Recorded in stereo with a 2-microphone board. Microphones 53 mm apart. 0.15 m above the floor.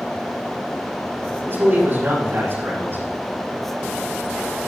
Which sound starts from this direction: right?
A man speaking, at 1.4 s.